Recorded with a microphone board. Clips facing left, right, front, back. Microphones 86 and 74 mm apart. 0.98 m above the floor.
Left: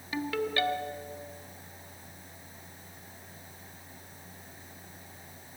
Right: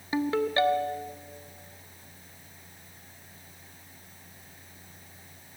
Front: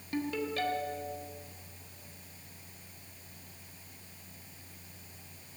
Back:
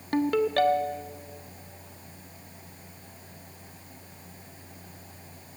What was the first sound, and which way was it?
A ringtone, 155° right.